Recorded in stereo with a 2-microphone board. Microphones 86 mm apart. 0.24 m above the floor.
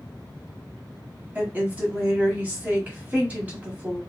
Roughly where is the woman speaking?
Right.